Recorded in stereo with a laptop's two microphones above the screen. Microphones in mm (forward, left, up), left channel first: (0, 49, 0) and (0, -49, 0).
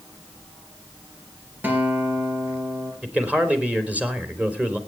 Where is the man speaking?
15° right (ahead or behind), 3.5 m.